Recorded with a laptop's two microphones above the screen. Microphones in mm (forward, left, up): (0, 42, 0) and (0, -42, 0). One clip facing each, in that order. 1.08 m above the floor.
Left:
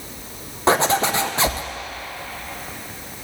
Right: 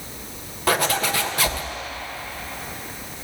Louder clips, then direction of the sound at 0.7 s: Left 4 dB; 20° left (ahead or behind).